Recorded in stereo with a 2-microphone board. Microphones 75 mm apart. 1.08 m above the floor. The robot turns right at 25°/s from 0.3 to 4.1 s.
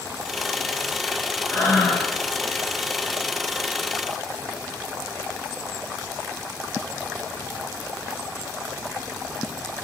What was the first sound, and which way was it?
Breathing, 40° left (ahead or behind).